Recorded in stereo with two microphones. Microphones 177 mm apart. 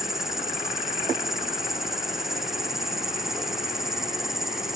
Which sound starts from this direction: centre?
An insect, at 0.0 s.